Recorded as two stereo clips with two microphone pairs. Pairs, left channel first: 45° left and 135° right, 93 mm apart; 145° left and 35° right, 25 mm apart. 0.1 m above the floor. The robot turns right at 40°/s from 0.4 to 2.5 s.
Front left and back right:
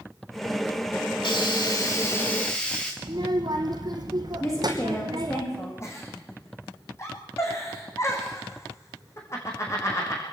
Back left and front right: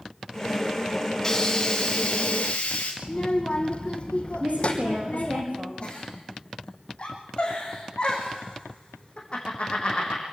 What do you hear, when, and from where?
1.2 s a hiss: 75° left, 3.5 m; by 2.9 s 125° left, 3.5 m
3.0 s a child speaking: 175° right, 3 m
4.4 s a woman speaking: 10° right, 8 m
5.8 s a giggle: 105° left, 5 m